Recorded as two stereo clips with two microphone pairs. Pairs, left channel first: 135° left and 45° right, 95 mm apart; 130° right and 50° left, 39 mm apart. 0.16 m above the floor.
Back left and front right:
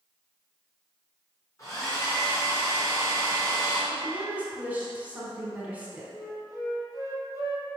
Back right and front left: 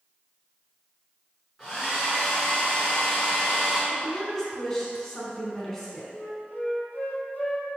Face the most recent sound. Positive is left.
turn(degrees=-170)